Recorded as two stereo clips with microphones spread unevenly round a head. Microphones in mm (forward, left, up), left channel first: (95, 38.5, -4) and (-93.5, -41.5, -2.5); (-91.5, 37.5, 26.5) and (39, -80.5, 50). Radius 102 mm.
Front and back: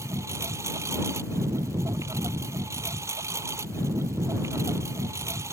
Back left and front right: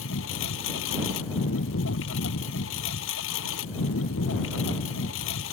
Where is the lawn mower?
125° left.